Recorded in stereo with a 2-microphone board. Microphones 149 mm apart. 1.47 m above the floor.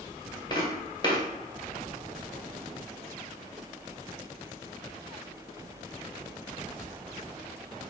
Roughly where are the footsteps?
Left.